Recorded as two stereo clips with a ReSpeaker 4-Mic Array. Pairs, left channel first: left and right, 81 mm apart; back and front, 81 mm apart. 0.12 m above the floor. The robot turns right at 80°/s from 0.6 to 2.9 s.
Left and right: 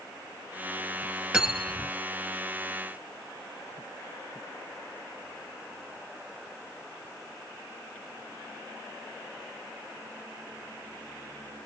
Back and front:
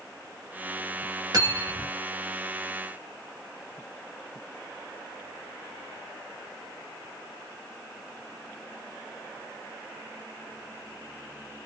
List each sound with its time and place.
1.3 s cutlery clinking: 15° right, 1.4 m; by 1.9 s 30° left, 1.4 m